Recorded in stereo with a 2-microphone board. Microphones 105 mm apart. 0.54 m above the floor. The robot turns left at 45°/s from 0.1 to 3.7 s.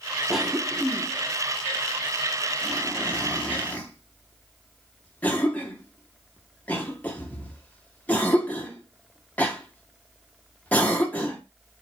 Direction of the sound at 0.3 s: 5° right (ahead or behind).